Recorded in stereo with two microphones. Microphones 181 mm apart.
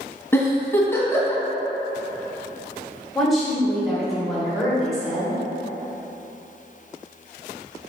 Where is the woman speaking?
Centre (ahead or behind), 1.0 m.